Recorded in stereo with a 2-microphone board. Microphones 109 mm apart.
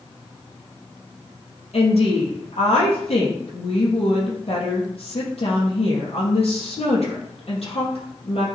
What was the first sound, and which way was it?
A woman speaking, 70° left (ahead or behind).